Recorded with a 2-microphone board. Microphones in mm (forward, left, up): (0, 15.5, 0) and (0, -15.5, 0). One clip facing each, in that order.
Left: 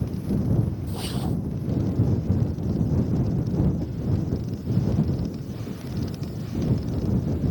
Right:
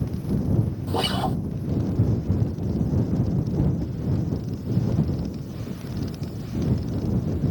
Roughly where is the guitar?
Right.